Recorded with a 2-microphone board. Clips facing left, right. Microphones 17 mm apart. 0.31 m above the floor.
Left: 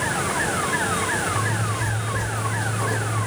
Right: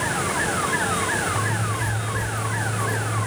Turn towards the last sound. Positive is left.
turn(degrees=40)  # may be behind; listen again after turning